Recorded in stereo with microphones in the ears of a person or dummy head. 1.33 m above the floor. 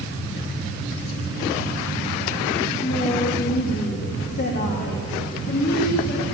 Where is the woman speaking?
30° left (ahead or behind), 1.6 m; by 6.2 s 55° left (ahead or behind), 3.5 m.